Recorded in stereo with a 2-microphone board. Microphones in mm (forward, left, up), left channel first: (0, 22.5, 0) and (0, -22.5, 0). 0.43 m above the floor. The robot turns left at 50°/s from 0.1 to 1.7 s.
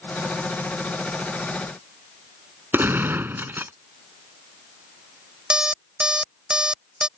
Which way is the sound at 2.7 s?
50° right (ahead or behind).